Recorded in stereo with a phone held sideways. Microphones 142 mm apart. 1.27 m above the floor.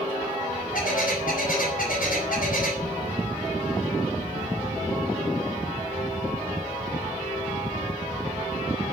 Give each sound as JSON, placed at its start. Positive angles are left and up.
{"t": 0.7, "sound": "a bird", "side_deg": 75, "distance_m": 5.0}